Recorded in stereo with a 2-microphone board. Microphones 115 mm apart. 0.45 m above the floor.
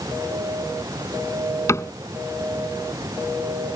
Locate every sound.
1.7 s a cupboard door: 25° left (ahead or behind)